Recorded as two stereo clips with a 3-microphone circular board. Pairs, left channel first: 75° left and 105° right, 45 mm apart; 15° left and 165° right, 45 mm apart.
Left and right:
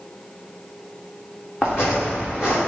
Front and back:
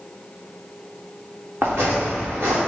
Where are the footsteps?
150° left, 1.4 m.